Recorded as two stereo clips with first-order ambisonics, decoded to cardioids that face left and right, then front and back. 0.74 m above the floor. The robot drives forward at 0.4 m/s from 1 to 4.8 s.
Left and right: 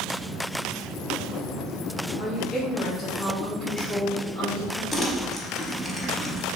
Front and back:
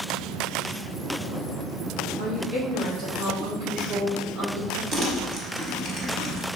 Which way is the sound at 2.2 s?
160° left.